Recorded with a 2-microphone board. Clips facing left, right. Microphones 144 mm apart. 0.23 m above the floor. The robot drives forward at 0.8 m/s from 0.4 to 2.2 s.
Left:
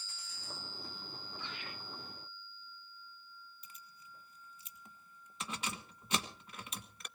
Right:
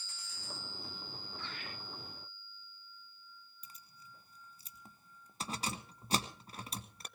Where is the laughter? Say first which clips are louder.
Even; 15° left (ahead or behind), 9.5 m; by 1.7 s 10° left (ahead or behind), 9.5 m.